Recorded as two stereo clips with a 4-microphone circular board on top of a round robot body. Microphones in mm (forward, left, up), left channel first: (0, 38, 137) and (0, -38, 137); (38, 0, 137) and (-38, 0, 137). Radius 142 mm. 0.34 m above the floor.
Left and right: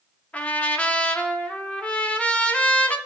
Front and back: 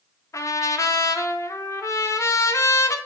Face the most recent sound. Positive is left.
turn(degrees=25)